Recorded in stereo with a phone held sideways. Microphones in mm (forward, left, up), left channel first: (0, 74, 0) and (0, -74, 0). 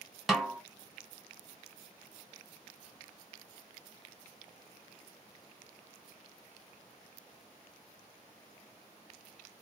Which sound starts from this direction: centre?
A snare drum, at 0.3 s.